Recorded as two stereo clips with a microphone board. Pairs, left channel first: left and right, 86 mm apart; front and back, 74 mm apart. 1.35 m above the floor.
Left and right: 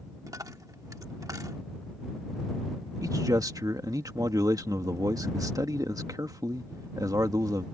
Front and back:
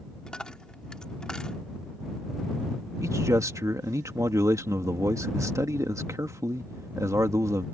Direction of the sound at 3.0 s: 135° right.